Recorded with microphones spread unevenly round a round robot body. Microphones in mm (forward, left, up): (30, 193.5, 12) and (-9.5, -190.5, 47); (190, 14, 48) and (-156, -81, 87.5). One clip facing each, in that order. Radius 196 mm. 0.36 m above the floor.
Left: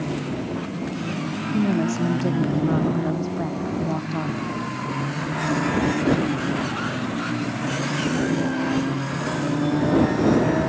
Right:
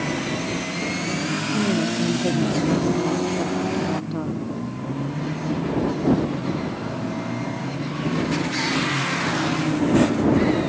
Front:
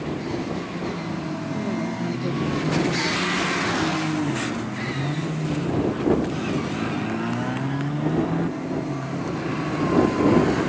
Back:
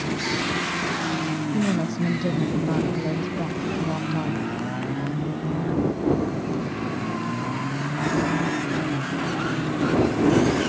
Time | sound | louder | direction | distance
1.5 | a woman speaking | left 2 dB, back 3 dB | 155° left | ?